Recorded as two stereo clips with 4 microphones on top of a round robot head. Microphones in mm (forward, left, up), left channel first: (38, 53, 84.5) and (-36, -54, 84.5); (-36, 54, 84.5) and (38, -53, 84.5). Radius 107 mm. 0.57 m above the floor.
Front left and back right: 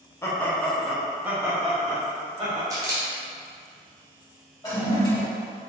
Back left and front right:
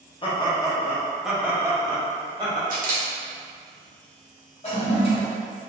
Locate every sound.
0.2 s laughter: 115° left, 1.0 m; by 2.6 s 90° right, 1.3 m
2.7 s a camera shutter: 60° right, 1.0 m
4.6 s a toilet flushing: 105° left, 1.7 m